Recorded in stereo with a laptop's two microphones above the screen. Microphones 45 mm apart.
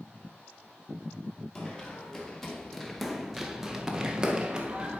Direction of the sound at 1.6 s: 15° left (ahead or behind).